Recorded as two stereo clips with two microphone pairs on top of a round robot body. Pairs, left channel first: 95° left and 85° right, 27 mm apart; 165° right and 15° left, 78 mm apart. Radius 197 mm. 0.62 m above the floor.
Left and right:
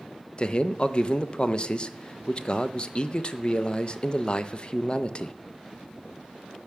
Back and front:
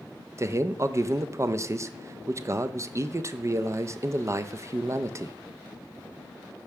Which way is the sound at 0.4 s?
60° left.